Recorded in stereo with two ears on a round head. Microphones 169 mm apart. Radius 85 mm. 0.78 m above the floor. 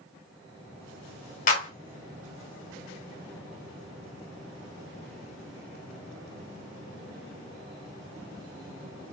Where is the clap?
45° left (ahead or behind), 1.5 m.